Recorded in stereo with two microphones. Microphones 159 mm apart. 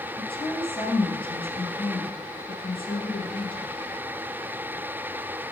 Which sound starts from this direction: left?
A woman speaking, at 0.2 s.